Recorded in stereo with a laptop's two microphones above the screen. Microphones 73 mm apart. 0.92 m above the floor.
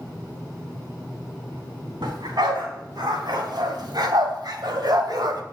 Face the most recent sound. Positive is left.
turn(degrees=-60)  # may be behind; listen again after turning